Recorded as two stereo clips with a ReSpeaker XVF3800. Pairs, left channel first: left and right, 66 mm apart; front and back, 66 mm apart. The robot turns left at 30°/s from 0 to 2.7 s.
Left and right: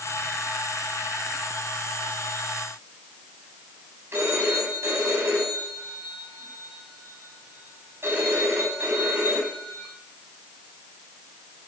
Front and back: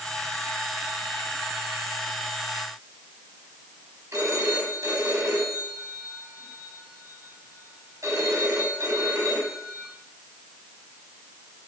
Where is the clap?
I don't hear a clap.